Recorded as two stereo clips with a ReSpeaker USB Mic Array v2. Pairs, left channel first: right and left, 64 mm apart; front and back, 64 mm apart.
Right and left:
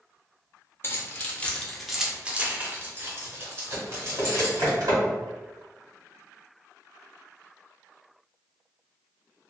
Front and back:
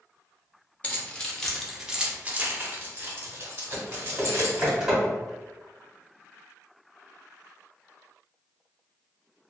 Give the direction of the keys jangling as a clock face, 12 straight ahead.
2 o'clock.